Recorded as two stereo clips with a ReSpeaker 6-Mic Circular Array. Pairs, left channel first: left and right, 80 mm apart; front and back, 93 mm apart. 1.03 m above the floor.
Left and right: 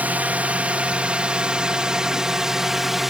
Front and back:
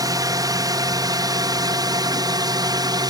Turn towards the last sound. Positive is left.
turn(degrees=-175)